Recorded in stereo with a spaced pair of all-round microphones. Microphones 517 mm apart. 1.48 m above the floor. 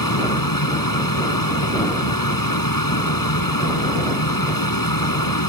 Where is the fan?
40° left (ahead or behind).